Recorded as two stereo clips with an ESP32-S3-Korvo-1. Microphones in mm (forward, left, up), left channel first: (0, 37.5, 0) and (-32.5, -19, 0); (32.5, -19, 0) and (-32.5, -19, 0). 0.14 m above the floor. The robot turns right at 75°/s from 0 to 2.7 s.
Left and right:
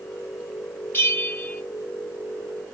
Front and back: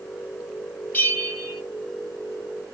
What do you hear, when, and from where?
0.9 s a bell: 35° left, 1.4 m; by 1.6 s 85° left, 1.4 m